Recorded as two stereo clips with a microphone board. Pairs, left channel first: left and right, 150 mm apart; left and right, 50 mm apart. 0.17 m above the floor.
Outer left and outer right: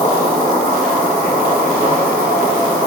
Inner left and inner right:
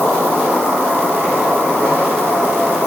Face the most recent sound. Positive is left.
turn(degrees=-45)  # may be behind; listen again after turning